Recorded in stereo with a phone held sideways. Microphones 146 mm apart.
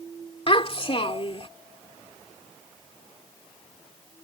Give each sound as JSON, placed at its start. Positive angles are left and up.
{"t": 0.5, "sound": "a child speaking", "side_deg": 45}